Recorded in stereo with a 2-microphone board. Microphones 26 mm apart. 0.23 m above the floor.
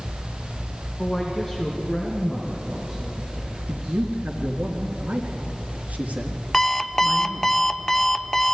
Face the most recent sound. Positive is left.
turn(degrees=10)  # may be behind; listen again after turning